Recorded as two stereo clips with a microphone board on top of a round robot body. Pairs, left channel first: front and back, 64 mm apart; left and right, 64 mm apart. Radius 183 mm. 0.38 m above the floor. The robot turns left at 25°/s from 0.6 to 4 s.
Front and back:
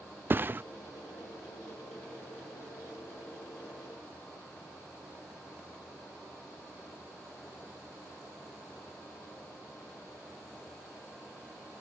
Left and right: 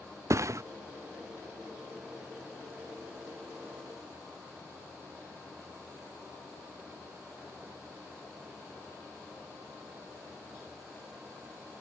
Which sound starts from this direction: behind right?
A thud, at 0.3 s.